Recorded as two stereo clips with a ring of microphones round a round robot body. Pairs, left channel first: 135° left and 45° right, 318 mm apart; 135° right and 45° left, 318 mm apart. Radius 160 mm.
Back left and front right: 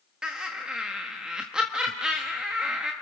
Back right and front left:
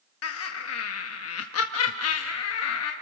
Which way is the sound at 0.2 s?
130° right.